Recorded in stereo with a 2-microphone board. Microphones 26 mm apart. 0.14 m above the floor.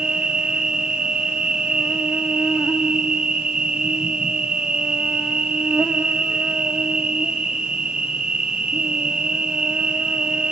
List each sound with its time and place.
0.0 s an insect: 40° right (ahead or behind), 2.5 m